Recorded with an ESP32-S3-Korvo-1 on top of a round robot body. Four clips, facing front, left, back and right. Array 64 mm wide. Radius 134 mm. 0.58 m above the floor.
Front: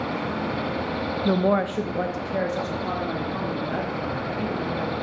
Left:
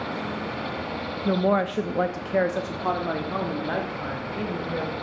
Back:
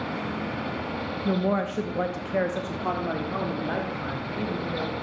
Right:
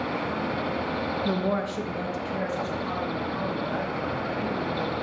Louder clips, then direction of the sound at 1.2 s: Left 8 dB, front 4 dB; 20° left.